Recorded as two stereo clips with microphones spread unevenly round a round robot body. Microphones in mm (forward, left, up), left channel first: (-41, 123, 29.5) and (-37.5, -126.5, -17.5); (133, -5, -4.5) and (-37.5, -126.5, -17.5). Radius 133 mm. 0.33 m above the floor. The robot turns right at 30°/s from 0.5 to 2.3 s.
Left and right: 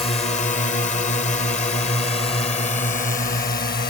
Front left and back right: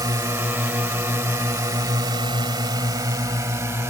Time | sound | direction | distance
0.0 | a drone | 155° left | ?